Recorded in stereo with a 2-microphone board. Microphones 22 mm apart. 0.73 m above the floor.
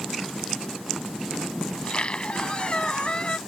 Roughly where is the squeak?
Left.